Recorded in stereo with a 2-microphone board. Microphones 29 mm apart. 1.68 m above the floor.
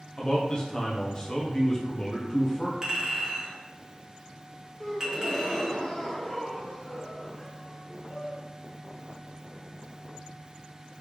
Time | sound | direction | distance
0.2 | a man speaking | 25° left (ahead or behind) | 1.1 m
2.8 | a clink | 20° right (ahead or behind) | 1.4 m
4.8 | a gasp | 20° left (ahead or behind) | 0.7 m